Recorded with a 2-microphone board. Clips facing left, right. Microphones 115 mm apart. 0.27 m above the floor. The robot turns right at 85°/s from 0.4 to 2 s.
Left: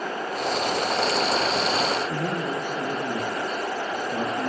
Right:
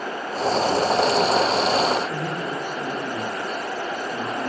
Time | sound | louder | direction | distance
2.1 | a man speaking | even | 45° left (ahead or behind) | 4.5 m